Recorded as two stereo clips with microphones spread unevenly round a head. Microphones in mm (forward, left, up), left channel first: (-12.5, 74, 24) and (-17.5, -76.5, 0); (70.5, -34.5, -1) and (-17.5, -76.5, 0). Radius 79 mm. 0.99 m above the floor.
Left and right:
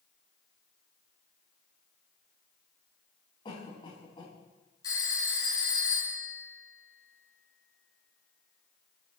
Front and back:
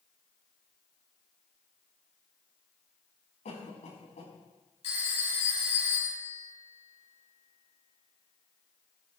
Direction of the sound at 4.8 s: 20° left.